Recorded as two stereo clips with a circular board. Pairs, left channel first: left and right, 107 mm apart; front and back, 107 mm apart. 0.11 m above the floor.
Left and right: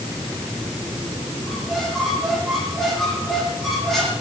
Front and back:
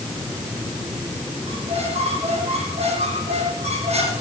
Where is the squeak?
175° left, 4 m.